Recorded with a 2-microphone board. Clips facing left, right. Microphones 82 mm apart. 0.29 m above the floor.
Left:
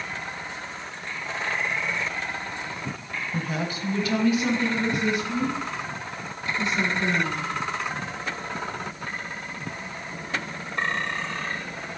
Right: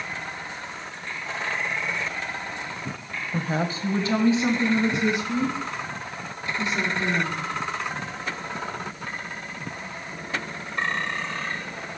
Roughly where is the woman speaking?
Right.